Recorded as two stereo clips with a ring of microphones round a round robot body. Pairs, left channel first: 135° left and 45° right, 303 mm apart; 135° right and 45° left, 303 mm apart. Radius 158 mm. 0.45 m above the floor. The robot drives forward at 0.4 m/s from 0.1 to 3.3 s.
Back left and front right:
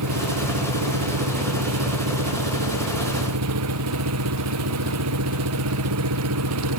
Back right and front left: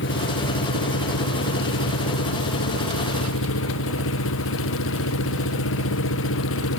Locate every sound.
0.0 s an engine running: 80° right; by 6.8 s 85° right